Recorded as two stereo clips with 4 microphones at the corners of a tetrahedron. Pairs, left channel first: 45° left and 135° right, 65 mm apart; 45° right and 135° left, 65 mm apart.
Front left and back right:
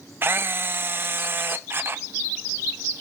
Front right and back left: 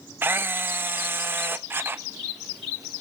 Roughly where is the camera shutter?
Behind.